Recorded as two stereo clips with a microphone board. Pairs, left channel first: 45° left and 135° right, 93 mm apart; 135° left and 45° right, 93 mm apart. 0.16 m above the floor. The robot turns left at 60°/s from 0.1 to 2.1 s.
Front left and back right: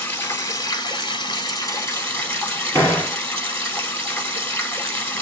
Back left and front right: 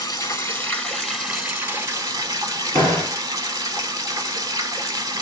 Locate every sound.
0.0 s running water: 110° left, 1.1 m; by 5.2 s 10° right, 1.1 m
2.7 s a door slam: 105° left, 1.9 m